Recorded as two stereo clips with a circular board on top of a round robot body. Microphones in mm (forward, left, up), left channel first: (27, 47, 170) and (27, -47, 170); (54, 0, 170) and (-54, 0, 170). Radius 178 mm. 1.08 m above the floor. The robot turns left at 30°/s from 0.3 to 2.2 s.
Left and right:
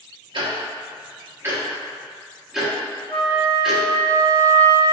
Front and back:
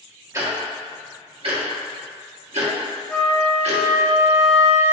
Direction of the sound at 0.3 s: 120° right.